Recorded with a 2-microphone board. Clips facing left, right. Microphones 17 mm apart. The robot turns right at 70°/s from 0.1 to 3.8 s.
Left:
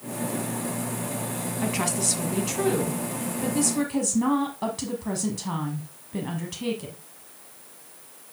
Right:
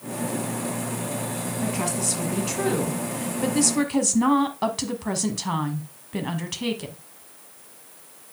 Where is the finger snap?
I don't hear a finger snap.